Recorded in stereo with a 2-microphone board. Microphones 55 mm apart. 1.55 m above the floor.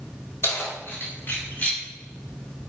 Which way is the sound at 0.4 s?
50° left (ahead or behind).